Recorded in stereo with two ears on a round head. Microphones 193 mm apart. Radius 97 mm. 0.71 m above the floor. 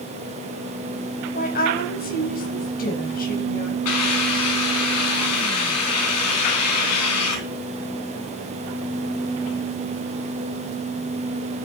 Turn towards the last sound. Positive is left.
turn(degrees=80)